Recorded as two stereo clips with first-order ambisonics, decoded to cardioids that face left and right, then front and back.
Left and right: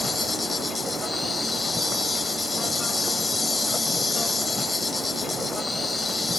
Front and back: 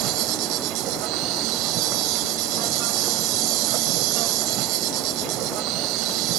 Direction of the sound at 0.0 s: 170° left.